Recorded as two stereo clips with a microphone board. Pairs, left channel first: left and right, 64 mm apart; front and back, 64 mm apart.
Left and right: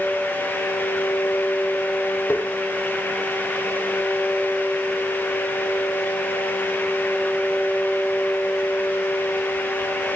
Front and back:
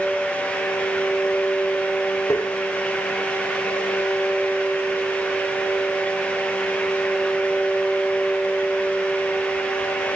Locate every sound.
2.3 s tapping: 40° left, 2.5 m